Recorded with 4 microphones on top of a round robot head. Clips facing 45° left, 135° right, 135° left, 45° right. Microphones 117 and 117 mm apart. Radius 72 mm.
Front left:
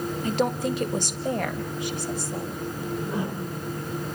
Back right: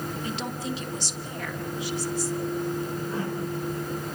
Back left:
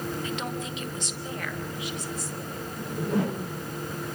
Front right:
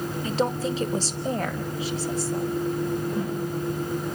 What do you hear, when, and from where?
0.2 s a woman speaking: 10° left, 1.5 m
2.8 s a whoosh: 125° left, 2 m